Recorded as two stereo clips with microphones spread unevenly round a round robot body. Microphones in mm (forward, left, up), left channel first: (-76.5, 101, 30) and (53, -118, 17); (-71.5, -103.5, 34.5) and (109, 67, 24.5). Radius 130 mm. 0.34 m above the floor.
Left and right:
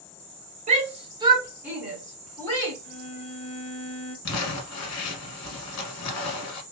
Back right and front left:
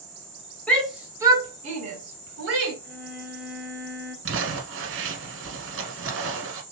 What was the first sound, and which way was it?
A shout, 55° right.